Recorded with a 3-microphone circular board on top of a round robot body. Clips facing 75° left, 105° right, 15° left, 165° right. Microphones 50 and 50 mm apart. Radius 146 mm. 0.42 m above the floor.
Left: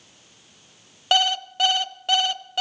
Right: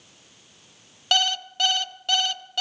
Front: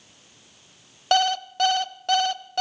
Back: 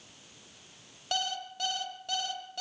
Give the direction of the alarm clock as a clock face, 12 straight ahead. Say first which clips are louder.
Left 2 dB, front 13 dB; 12 o'clock.